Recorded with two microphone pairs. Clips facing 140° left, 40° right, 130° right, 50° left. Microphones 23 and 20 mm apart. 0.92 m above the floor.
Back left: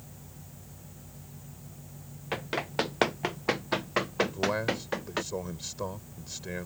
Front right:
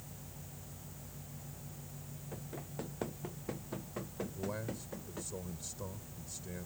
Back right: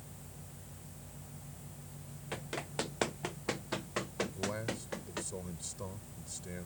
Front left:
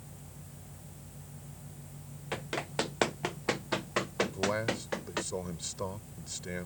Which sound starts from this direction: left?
A man speaking, at 4.2 s.